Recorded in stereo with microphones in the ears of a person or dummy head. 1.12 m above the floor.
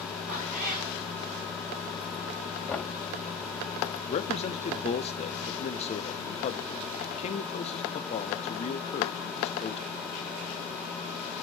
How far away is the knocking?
About 2.5 m.